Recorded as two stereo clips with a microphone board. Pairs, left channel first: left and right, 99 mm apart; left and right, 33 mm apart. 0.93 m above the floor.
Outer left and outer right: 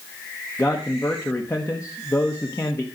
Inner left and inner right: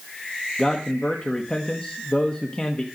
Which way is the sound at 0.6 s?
30° left (ahead or behind).